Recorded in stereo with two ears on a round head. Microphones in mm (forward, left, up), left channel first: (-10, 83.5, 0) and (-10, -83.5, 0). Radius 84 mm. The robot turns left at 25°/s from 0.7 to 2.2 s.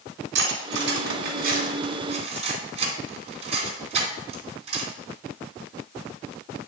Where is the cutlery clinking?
70° right (ahead or behind), 2.5 m; by 4.9 s 35° right (ahead or behind), 2.5 m.